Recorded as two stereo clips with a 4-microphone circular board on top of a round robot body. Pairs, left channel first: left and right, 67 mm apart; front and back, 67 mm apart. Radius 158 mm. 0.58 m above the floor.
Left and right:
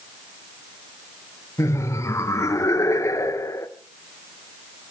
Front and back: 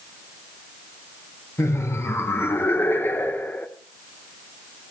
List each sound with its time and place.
1.6 s laughter: 45° left, 3 m; by 3.7 s 60° left, 2 m